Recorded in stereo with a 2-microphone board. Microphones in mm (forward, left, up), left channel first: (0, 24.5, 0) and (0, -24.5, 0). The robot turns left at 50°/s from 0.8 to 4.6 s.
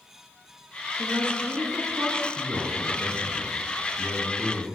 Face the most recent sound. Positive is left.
turn(degrees=160)